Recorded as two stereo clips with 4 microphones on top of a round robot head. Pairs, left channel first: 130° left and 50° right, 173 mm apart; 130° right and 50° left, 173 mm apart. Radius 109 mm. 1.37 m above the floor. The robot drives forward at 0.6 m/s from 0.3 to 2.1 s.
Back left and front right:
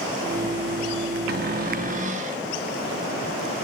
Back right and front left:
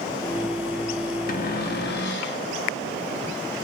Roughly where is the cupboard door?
Right.